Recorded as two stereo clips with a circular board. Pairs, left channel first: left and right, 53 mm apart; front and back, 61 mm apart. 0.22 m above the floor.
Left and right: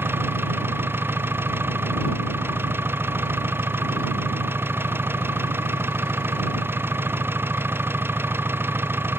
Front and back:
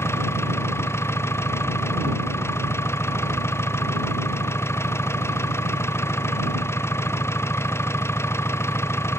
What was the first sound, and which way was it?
An engine running, 45° right.